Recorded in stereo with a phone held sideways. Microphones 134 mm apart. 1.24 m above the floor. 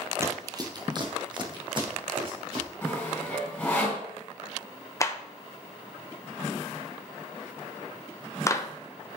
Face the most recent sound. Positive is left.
turn(degrees=20)  # may be behind; listen again after turning